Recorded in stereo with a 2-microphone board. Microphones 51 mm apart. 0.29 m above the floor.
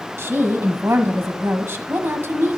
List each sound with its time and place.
0.2 s a woman speaking: 55° right (ahead or behind), 1.6 m